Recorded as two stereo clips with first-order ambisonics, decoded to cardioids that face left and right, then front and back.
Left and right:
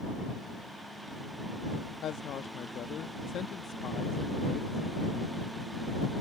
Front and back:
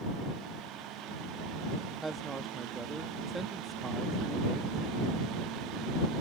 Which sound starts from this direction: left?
A woman speaking, at 2.0 s.